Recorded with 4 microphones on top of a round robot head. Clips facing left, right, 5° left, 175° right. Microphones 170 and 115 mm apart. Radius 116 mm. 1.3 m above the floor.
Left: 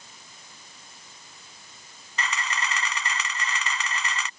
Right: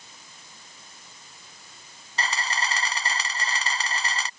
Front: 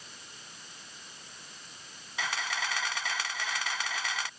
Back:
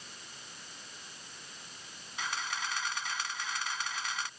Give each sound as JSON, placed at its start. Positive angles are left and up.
{"t": 2.2, "sound": "a camera shutter", "azimuth_deg": -35}